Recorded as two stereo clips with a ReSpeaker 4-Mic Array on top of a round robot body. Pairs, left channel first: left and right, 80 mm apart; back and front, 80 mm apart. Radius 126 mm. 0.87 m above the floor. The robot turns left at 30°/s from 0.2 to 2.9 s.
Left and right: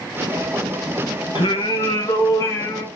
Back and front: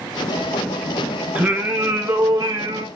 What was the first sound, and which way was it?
Singing, 80° left.